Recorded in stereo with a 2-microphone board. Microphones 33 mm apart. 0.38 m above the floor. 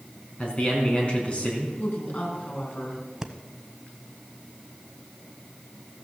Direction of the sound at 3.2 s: 15° right (ahead or behind).